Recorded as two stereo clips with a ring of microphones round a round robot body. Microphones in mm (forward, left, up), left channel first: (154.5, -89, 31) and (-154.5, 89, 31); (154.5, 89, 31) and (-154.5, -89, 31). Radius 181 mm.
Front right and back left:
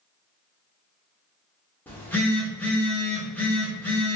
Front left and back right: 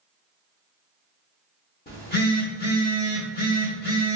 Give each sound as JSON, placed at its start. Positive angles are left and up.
{"t": 1.9, "sound": "a phone buzzing", "azimuth_deg": 50, "distance_m": 0.7}